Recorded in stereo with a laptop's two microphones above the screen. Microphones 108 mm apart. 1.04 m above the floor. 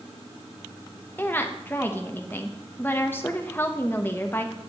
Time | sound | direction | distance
1.2 | a woman speaking | 20° left (ahead or behind) | 1.0 m